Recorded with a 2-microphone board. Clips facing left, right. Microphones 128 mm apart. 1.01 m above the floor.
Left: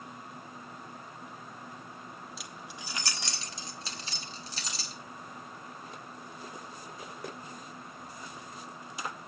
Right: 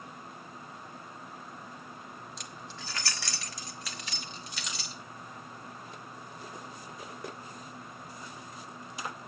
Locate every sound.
2.4 s keys jangling: 5° left (ahead or behind), 1.1 m; by 5.0 s 35° left (ahead or behind), 2.5 m